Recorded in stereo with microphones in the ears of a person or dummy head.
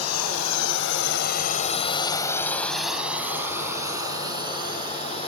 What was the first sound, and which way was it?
A drone, 85° left.